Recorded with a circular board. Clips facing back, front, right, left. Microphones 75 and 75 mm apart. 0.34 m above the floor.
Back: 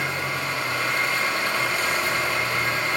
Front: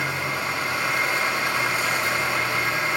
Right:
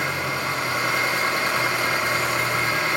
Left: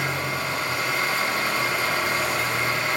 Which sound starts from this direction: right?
An engine running, at 0.0 s.